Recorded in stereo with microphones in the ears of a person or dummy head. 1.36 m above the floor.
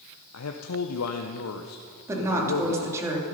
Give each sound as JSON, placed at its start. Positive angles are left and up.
{"t": 0.3, "sound": "a man speaking", "side_deg": 85, "distance_m": 0.7}
{"t": 2.1, "sound": "a woman speaking", "side_deg": -15, "distance_m": 2.5}